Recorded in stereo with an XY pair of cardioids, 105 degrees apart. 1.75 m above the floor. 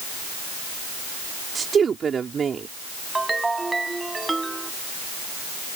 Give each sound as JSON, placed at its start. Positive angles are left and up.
{"t": 1.6, "sound": "a woman speaking", "azimuth_deg": -40}
{"t": 3.1, "sound": "a ringtone", "azimuth_deg": -20}